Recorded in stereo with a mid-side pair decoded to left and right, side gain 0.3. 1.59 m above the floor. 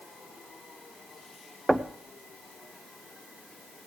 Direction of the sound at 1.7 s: 15° right.